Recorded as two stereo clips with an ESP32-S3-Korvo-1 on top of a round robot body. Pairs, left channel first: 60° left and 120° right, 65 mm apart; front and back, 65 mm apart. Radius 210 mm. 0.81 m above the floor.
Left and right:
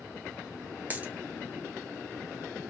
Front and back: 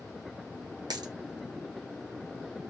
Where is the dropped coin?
175° left, 0.8 m.